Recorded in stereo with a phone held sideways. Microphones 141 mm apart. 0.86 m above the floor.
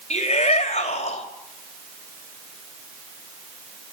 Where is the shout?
50° left (ahead or behind), 3.5 m.